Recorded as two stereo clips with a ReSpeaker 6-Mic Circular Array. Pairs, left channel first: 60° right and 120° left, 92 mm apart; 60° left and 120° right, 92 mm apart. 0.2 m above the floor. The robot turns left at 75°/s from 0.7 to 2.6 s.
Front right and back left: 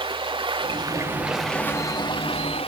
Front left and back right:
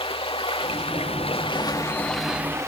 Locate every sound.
0.0 s running water: 85° left, 2 m; by 2.7 s 60° right, 2 m